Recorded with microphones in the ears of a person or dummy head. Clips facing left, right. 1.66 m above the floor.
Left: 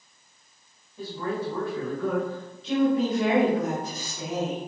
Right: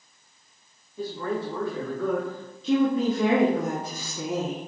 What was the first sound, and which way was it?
A man speaking, 15° right (ahead or behind).